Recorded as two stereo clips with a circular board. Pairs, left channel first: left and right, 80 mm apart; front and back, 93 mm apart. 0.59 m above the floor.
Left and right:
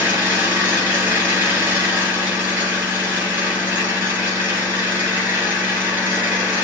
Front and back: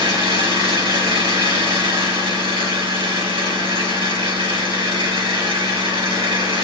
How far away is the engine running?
About 3 m.